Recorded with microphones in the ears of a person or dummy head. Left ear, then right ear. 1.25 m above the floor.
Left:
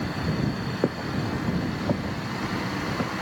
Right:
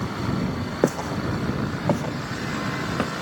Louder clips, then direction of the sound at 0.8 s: Right 5 dB; 65° right (ahead or behind).